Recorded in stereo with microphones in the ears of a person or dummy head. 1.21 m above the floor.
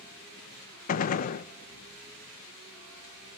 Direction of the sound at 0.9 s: 50° left (ahead or behind).